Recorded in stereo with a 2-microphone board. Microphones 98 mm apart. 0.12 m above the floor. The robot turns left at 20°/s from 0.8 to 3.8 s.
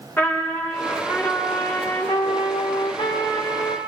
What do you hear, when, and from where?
0.2 s a trumpet: 160° left, 4.5 m; by 3.8 s 100° left, 4.5 m